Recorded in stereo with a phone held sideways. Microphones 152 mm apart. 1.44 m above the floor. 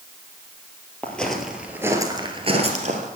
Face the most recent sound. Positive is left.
turn(degrees=-55)  # may be behind; listen again after turning